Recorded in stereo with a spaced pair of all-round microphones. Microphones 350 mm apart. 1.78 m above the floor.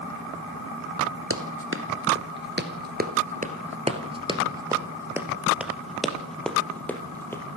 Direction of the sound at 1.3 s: 40° right (ahead or behind).